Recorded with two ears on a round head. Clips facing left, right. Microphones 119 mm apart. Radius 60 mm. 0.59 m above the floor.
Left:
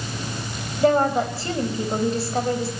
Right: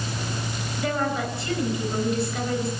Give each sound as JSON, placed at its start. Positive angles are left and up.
{"t": 0.8, "sound": "a woman speaking", "side_deg": 30, "distance_m": 3.5}